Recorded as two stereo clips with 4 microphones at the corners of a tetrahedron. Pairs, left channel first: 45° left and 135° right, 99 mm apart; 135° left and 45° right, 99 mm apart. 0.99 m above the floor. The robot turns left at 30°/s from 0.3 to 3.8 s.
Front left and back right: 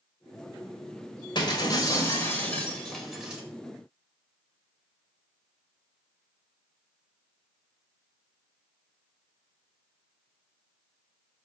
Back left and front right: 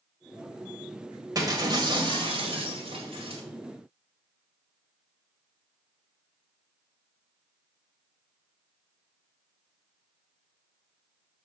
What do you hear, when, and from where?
1.4 s breaking glass: 5° left, 2.0 m; by 3.4 s 55° right, 2.0 m